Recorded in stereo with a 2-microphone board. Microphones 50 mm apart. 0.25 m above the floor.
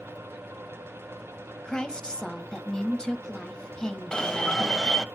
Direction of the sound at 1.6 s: 15° left (ahead or behind).